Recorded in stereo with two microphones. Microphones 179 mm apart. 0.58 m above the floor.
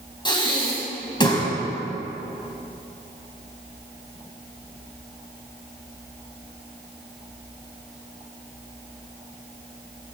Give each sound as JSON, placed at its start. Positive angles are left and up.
{"t": 0.2, "sound": "breathing", "side_deg": 25, "distance_m": 2.0}